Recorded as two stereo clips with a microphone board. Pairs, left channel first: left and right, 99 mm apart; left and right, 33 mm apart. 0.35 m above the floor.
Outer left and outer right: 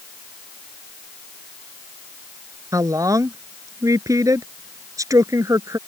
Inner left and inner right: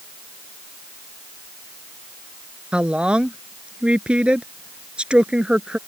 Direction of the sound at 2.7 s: 35° right (ahead or behind).